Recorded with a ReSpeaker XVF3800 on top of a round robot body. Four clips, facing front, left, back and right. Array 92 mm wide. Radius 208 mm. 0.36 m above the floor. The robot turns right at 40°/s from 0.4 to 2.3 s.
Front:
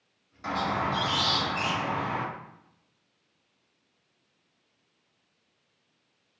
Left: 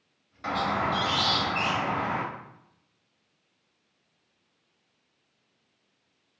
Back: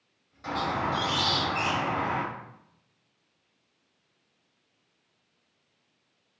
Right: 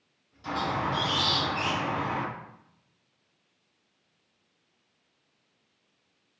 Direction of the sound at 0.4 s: 70° left.